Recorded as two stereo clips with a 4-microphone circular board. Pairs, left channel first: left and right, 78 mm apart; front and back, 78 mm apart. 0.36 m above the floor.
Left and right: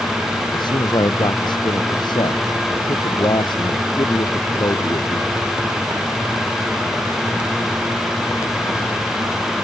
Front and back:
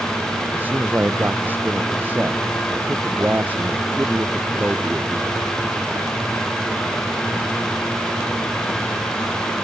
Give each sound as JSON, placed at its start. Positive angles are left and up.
{"t": 0.5, "sound": "a man speaking", "azimuth_deg": 115}